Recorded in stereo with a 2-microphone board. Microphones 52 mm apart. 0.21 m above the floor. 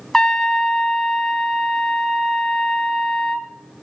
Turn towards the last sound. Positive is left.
turn(degrees=10)  # may be behind; listen again after turning